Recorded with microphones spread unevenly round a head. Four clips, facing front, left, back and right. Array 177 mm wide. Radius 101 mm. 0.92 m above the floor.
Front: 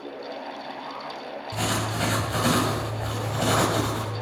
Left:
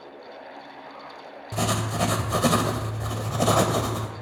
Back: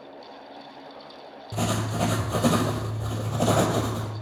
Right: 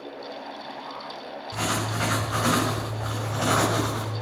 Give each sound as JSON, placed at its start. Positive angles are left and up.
{"t": 1.5, "sound": "writing", "azimuth_deg": 135, "distance_m": 2.0}